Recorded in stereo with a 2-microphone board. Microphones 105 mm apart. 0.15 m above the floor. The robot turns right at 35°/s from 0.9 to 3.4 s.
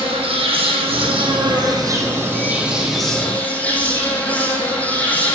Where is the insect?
70° right, 1.5 m; by 5.3 s 15° left, 1.5 m.